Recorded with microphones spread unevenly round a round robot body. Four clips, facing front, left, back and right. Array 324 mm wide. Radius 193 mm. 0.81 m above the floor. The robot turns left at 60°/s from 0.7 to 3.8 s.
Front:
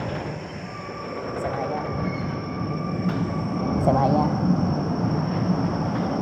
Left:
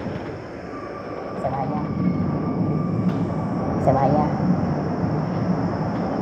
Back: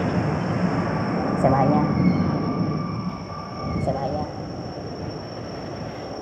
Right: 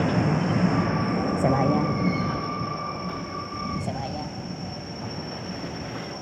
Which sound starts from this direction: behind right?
A vehicle, at 0.0 s.